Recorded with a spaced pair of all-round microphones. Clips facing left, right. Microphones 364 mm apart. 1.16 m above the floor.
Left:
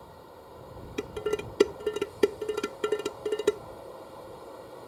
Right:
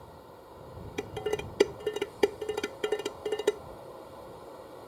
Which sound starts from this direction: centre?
Dishes clattering, at 1.0 s.